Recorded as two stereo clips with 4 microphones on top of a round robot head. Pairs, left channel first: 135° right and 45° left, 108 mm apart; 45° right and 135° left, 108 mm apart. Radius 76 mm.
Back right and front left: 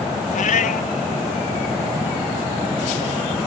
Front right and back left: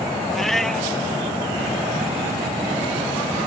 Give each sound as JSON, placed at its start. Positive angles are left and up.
{"t": 0.3, "sound": "a cat meowing", "azimuth_deg": -130}